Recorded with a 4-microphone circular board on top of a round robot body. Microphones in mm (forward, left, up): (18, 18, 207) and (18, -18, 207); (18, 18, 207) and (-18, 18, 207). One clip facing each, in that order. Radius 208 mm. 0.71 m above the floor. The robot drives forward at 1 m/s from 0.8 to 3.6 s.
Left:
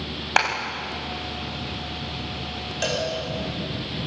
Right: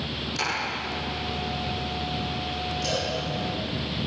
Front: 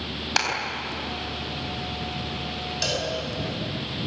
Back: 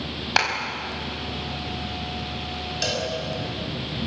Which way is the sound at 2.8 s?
90° left.